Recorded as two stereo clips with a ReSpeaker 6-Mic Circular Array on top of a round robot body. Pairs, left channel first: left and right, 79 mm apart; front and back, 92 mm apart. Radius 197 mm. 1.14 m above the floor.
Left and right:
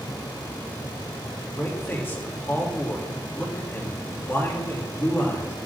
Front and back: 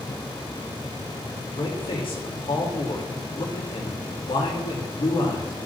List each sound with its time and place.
1.6 s a man speaking: 30° left, 4 m